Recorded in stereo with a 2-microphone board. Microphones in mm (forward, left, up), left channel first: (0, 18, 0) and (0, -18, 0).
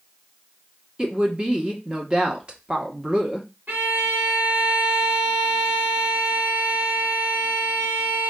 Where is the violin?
50° right (ahead or behind), 2 m.